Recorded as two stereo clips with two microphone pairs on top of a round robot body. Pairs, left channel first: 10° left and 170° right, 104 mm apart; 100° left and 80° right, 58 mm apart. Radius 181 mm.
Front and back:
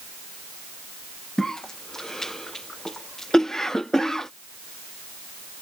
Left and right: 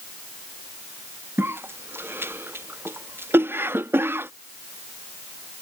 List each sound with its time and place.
1.4 s a cough: 55° right